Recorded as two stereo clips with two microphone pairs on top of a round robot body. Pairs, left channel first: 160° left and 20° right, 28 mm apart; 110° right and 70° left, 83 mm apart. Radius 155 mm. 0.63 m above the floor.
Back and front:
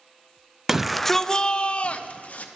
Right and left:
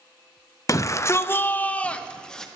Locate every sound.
0.7 s a shout: 100° right, 0.6 m; by 2.5 s 165° left, 1.0 m